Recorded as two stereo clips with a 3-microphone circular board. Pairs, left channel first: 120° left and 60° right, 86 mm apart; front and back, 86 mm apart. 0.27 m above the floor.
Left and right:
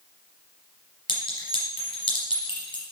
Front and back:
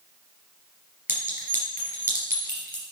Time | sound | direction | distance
1.1 | a clink | 115° left | 3.5 m